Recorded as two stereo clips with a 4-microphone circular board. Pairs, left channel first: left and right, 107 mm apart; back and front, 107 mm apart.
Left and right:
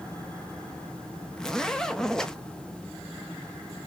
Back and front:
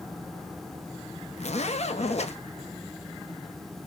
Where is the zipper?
175° left, 0.8 m.